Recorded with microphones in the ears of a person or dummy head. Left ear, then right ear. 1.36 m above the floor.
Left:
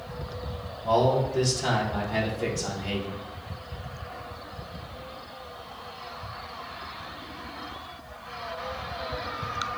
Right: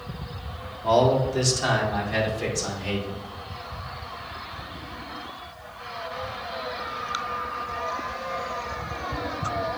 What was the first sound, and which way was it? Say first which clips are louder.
A man speaking: right 3 dB; 70° right (ahead or behind).